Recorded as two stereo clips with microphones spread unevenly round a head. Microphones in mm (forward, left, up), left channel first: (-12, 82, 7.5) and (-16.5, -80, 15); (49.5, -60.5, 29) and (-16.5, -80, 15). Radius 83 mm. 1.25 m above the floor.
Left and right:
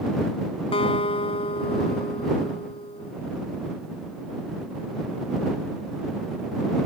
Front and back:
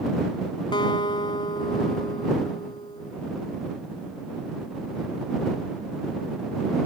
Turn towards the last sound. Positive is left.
turn(degrees=25)